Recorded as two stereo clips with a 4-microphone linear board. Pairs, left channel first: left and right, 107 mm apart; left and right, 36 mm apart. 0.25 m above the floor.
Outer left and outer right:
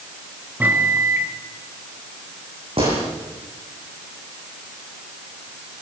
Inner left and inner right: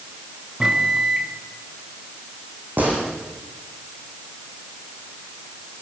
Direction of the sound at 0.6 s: 15° right (ahead or behind).